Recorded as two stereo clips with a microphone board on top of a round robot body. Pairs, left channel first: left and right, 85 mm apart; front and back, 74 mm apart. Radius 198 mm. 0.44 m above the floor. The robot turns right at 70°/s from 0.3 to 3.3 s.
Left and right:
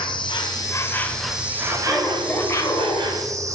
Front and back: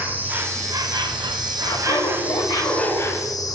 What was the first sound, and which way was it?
An insect, 115° left.